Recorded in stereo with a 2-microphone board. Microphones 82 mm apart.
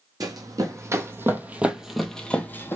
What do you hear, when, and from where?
0.2 s running footsteps: 50° right (ahead or behind), 1.3 m; by 2.8 s 30° left (ahead or behind), 0.9 m